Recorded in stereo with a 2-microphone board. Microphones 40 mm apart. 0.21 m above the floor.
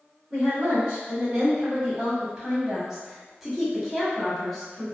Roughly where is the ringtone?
I don't hear a ringtone.